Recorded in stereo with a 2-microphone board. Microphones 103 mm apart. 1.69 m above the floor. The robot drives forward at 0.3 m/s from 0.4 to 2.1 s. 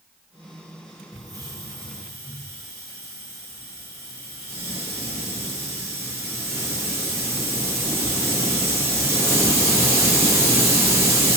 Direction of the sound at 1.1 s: 35° right (ahead or behind).